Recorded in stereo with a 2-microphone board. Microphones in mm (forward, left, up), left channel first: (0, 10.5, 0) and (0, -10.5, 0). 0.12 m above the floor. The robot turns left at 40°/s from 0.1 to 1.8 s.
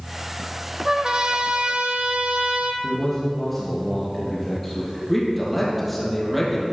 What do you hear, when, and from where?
0.8 s a trumpet: 30° right, 1.0 m; by 2.7 s 70° right, 1.0 m
2.8 s a man speaking: 10° left (ahead or behind), 2.5 m
5.1 s a man speaking: 5° left (ahead or behind), 3.5 m